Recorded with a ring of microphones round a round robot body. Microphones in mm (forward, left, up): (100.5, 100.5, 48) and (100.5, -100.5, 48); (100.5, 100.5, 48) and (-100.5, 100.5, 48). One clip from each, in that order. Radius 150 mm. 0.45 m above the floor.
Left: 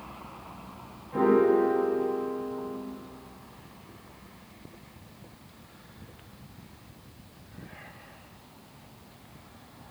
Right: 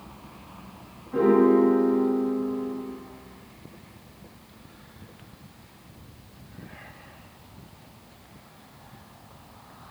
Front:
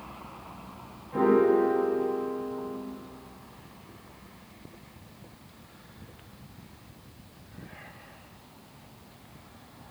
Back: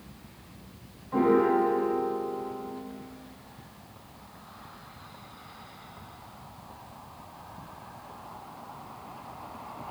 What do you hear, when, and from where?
1.1 s a piano: 165° left, 1.3 m